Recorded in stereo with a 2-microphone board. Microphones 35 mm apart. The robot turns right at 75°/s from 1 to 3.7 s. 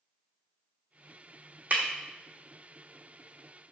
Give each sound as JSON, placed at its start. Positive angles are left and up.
{"t": 1.7, "sound": "breaking glass", "side_deg": -50, "distance_m": 1.1}